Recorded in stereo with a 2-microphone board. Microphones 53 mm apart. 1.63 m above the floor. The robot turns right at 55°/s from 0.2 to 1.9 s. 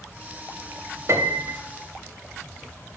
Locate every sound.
1.1 s a piano: 60° right (ahead or behind), 1.5 m; by 1.6 s 30° right (ahead or behind), 1.5 m